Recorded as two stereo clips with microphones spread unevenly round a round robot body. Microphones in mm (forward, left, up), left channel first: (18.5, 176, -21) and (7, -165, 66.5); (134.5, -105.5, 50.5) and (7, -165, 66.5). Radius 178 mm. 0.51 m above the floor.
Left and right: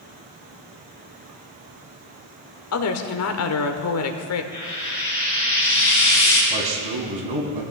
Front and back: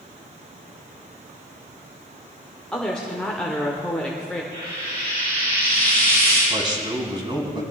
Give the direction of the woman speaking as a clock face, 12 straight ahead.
8 o'clock.